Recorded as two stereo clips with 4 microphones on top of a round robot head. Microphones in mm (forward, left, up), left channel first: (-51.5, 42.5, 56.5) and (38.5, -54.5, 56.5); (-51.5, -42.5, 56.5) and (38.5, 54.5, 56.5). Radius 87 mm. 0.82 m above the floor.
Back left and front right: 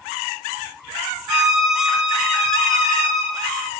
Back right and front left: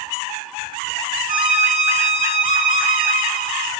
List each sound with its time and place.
1.3 s a violin: 40° left, 2.5 m